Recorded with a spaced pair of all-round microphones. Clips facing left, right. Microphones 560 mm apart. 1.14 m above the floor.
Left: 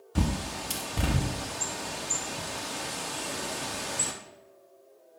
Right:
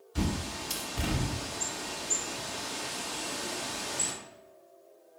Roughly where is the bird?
Left.